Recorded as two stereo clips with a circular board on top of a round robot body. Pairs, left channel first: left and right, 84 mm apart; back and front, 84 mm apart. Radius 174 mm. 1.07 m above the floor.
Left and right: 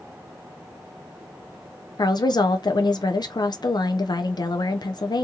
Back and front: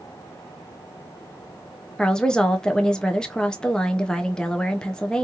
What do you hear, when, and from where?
2.0 s a woman speaking: 100° left, 0.5 m